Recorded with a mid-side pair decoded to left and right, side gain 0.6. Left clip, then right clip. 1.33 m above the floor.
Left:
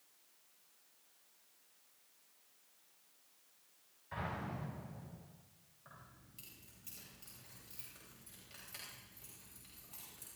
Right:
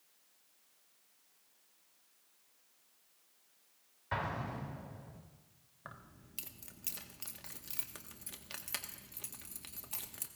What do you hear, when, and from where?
4.1 s an explosion: 60° right, 3.5 m
5.8 s keys jangling: 65° right, 1.6 m